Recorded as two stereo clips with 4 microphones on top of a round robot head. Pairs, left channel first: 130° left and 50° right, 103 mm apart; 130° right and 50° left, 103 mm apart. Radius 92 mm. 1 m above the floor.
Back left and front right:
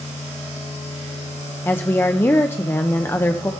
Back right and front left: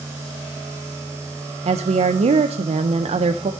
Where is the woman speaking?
60° left, 0.5 m.